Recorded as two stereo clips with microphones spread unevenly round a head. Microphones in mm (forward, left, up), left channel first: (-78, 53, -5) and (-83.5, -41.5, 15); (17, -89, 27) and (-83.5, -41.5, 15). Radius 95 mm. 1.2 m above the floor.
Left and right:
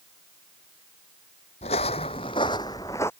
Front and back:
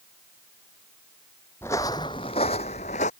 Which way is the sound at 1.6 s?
50° left.